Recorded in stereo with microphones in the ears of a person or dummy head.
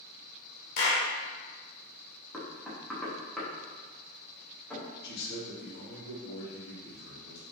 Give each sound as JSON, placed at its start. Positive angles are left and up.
{"t": 0.8, "sound": "a clap", "side_deg": 60, "distance_m": 1.0}
{"t": 2.3, "sound": "knocking", "side_deg": 0, "distance_m": 0.9}
{"t": 5.0, "sound": "a man speaking", "side_deg": 60, "distance_m": 1.3}